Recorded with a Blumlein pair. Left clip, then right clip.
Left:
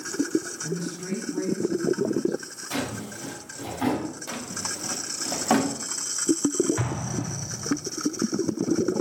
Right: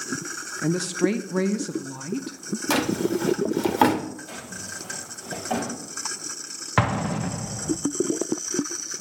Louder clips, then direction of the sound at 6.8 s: Right 7 dB; 35° right.